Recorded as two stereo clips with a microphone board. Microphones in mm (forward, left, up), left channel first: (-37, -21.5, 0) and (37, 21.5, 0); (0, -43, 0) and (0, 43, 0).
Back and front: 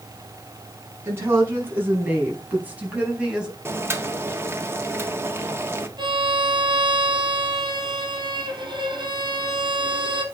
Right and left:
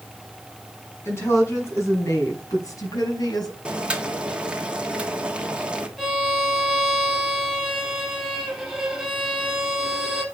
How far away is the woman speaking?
About 5.5 m.